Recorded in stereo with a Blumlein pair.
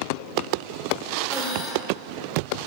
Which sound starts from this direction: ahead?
Breathing, at 1.3 s.